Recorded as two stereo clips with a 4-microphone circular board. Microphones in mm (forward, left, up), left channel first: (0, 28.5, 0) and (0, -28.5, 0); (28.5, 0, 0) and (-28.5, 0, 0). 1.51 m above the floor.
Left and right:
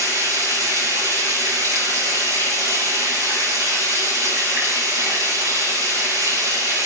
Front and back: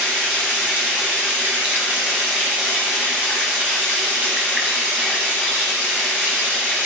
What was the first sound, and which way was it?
Running water, 110° right.